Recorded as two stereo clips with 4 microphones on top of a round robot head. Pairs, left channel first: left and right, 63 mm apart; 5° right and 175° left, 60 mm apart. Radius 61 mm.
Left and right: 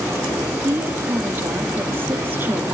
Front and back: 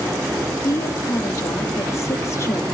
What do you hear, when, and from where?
0.6 s a woman speaking: 35° right, 1.6 m